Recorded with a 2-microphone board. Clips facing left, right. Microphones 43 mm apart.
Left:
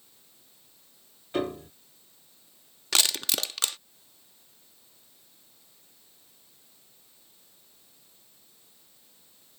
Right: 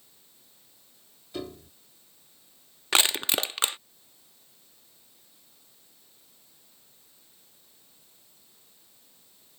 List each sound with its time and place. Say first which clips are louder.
1.3 s a piano: left 8 dB; 45° left (ahead or behind)
2.9 s crushing: right 3 dB; 25° right (ahead or behind)